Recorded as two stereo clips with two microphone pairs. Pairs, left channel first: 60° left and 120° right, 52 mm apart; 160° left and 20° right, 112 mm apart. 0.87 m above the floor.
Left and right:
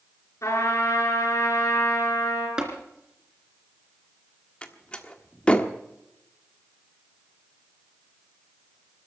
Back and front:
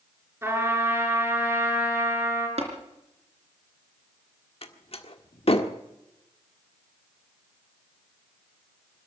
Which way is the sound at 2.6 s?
40° right.